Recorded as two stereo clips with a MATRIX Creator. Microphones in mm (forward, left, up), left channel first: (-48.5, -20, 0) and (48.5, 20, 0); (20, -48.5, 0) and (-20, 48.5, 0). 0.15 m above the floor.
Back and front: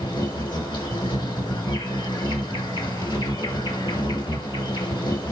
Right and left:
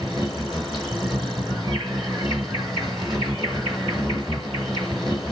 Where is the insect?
160° right, 2.5 m.